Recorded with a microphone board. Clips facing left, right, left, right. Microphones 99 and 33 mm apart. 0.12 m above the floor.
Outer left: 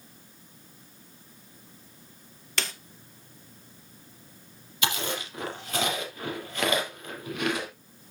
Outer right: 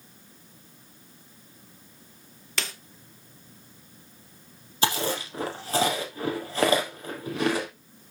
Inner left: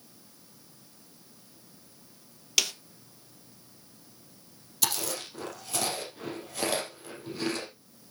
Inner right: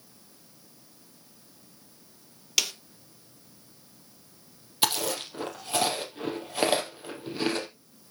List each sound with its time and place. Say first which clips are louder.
2.6 s a snare drum: even, even; centre (ahead or behind), 1.2 m
4.8 s chewing: outer right 4 dB, inner right 5 dB; 35° right (ahead or behind), 3 m